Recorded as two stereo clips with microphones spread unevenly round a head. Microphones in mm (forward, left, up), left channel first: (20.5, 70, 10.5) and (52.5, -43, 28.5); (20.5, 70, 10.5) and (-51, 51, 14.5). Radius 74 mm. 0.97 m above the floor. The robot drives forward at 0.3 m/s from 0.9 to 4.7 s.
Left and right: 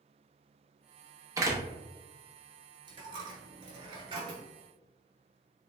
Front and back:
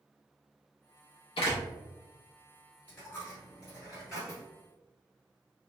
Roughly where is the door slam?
Ahead.